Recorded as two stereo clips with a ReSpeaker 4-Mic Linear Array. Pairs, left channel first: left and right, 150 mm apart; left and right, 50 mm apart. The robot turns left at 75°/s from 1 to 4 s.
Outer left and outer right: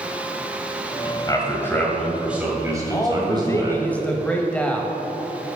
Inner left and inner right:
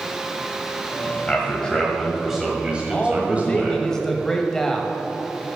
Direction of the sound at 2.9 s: 20° left (ahead or behind).